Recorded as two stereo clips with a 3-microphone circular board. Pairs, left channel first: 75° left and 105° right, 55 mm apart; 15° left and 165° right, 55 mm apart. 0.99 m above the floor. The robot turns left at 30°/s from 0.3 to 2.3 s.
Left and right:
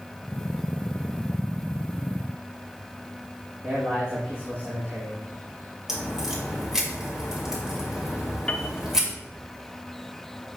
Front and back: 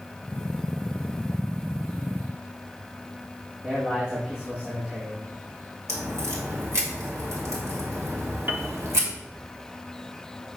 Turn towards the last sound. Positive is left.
turn(degrees=145)